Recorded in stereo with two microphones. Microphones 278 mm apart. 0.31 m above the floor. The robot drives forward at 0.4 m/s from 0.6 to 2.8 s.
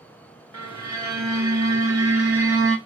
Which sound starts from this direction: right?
A violin, at 0.5 s.